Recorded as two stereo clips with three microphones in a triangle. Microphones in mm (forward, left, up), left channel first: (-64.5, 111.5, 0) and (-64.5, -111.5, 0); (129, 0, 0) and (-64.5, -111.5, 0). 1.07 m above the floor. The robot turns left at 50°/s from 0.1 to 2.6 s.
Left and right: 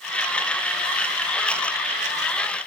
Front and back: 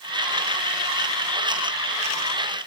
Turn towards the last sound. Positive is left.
No sound to turn to.